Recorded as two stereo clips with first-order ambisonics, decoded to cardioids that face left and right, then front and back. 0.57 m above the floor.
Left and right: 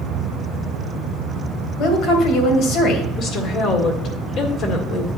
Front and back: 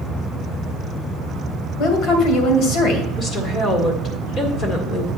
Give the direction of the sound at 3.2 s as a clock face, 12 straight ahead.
10 o'clock.